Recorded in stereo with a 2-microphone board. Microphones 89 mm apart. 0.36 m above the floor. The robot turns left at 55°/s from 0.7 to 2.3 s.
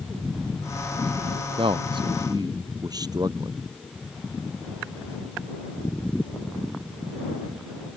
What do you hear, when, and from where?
1.6 s a man speaking: 90° right; by 3.6 s 130° right